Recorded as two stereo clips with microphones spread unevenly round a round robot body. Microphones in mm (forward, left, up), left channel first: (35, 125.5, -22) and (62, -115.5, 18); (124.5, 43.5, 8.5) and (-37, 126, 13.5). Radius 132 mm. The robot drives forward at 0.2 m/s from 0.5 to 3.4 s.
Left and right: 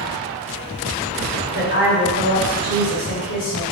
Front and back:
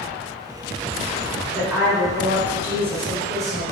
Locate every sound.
1.5 s a woman speaking: 65° left, 1.4 m; by 3.6 s 80° left, 1.3 m